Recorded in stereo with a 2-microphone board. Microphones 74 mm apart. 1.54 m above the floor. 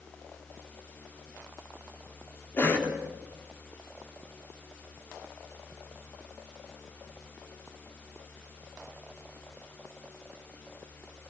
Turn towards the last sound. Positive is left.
turn(degrees=25)  # may be behind; listen again after turning